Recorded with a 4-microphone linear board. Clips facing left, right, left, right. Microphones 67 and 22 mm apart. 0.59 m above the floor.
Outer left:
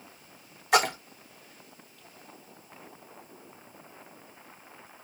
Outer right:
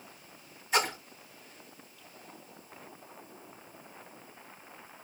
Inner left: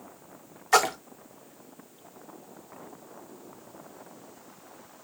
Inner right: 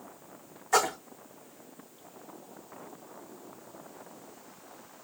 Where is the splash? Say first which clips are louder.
Outer left 6 dB, inner left 4 dB; 70° left (ahead or behind), 0.5 m.